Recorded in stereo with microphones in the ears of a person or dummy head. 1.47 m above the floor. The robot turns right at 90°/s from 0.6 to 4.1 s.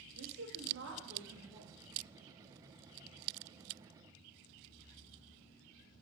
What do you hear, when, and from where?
0.1 s a woman speaking: 115° right, 2 m; by 1.7 s 15° right, 2 m